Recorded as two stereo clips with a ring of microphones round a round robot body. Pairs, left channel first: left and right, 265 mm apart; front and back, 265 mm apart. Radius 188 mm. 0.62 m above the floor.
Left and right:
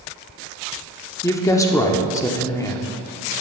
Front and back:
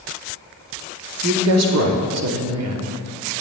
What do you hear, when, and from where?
1.2 s a woman speaking: 170° left, 1.1 m